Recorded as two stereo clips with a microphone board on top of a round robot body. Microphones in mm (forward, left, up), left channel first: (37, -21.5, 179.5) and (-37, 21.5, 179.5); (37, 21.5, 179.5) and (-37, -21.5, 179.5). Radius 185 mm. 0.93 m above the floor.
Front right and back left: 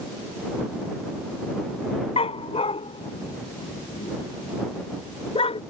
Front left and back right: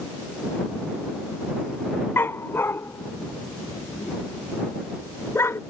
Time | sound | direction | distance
2.2 | a dog barking | 35° right | ?